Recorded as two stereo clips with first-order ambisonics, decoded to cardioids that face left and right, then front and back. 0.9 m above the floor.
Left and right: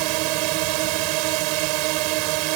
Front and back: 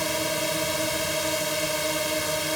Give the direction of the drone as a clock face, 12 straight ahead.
3 o'clock.